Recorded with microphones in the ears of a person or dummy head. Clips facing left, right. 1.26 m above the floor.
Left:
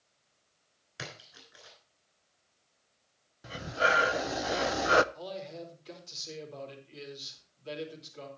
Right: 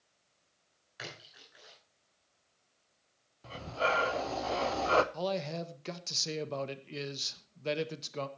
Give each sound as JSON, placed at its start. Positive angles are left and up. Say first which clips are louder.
{"t": 1.0, "sound": "a splash", "louder": "left 2 dB", "side_deg": 45, "distance_m": 6.0}
{"t": 3.4, "sound": "breathing", "louder": "left 2 dB", "side_deg": 15, "distance_m": 0.5}
{"t": 5.1, "sound": "a man speaking", "louder": "right 6 dB", "side_deg": -80, "distance_m": 1.6}